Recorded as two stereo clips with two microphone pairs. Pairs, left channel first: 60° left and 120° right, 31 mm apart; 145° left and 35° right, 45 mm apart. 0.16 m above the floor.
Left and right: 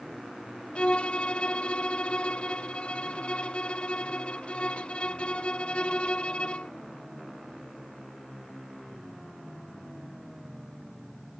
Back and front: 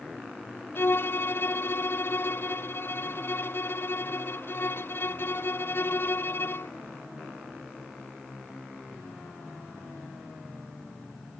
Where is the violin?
115° left.